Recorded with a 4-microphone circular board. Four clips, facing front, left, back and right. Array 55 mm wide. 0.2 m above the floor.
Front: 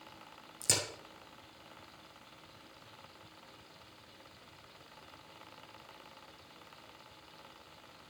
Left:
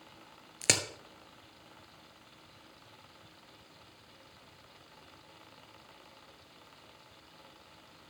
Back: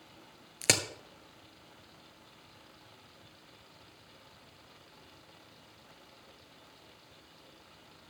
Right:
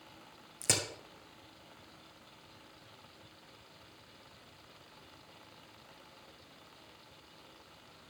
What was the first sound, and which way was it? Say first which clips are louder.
A crack: left 4 dB, back 7 dB; 140° left.